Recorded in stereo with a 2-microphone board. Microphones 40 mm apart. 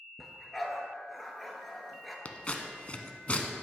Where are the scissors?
35° left (ahead or behind), 0.8 m.